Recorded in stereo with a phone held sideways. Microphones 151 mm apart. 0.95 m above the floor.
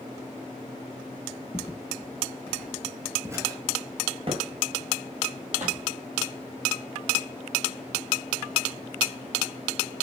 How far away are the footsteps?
About 1.1 m.